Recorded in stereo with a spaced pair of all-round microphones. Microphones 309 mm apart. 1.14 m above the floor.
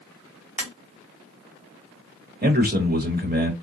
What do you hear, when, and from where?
0.6 s tapping: 5° right (ahead or behind), 2.5 m
2.4 s a man speaking: 30° right (ahead or behind), 1.4 m